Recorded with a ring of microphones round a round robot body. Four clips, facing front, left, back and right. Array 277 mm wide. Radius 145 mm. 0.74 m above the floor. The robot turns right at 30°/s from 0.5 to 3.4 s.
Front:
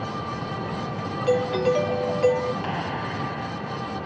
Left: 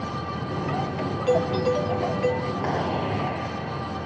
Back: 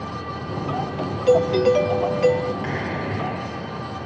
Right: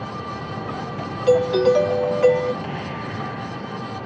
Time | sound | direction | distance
1.3 | a doorbell | 135° right | ?
2.6 | a clap | 110° left | ?